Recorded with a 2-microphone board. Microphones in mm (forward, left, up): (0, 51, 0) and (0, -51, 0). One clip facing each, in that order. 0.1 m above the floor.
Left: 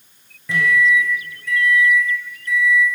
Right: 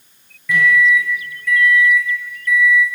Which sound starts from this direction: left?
A microwave, at 0.5 s.